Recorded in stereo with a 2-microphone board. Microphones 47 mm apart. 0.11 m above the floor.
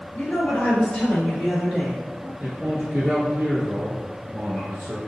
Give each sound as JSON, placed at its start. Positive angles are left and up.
{"t": 0.1, "sound": "a woman speaking", "side_deg": 30, "distance_m": 1.8}
{"t": 2.4, "sound": "a man speaking", "side_deg": -20, "distance_m": 1.4}